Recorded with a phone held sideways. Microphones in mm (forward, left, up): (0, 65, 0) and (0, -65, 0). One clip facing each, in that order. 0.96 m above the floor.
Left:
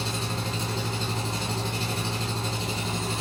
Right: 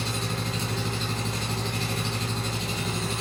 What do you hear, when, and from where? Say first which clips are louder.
0.0 s an engine running: even; 30° left (ahead or behind), 2 m